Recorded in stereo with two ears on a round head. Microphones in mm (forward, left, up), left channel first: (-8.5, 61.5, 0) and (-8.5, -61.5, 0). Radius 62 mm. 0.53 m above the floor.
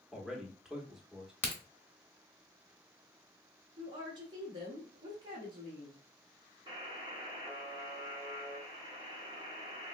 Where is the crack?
15° left (ahead or behind), 1.1 m.